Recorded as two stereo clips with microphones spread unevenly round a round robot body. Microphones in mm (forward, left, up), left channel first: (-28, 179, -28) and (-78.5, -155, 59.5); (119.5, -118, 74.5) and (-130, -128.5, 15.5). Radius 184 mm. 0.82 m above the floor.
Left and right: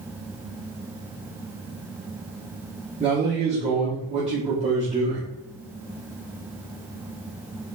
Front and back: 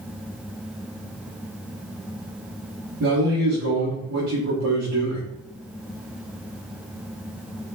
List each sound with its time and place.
3.0 s a man speaking: 175° right, 1.7 m